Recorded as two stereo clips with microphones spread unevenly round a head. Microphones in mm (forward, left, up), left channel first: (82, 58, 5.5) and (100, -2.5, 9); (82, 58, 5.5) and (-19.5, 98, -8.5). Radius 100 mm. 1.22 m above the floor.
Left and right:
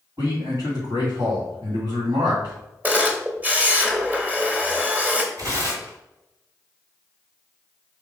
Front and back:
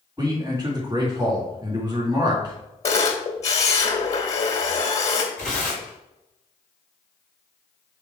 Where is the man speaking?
125° right, 2.5 m.